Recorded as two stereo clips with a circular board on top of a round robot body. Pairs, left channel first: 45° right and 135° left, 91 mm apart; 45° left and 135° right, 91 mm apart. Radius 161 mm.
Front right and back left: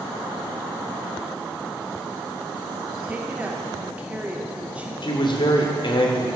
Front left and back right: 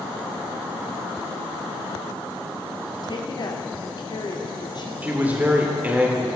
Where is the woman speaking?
65° left, 2 m.